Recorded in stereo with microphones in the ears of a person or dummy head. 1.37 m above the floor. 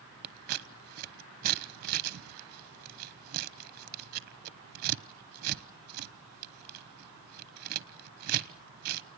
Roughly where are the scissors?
Right.